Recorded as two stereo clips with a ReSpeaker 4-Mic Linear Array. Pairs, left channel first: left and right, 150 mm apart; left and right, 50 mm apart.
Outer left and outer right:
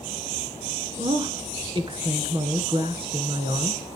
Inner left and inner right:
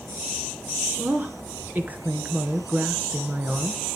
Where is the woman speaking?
35° right (ahead or behind), 2.5 m.